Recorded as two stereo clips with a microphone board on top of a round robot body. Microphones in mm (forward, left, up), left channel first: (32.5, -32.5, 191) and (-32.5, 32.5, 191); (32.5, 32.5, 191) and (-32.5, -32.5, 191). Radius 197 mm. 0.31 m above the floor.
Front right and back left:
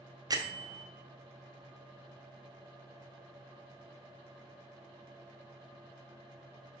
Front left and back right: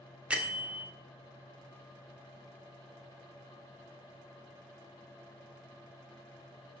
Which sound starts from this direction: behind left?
A bell, at 0.3 s.